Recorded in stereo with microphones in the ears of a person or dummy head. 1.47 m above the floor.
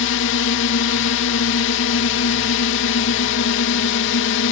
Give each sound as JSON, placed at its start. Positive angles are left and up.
{"t": 0.0, "sound": "a drone", "side_deg": 65}